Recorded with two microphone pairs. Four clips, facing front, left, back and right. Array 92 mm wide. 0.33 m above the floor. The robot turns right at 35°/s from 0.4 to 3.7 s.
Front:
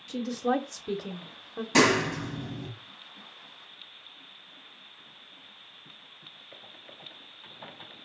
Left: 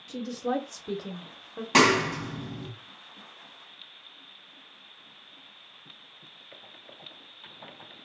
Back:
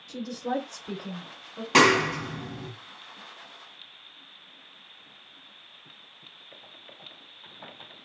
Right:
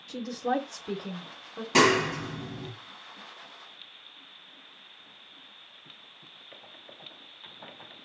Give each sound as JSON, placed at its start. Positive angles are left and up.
{"t": 0.1, "sound": "a woman speaking", "azimuth_deg": -25, "distance_m": 0.9}
{"t": 1.7, "sound": "a clap", "azimuth_deg": 130, "distance_m": 1.8}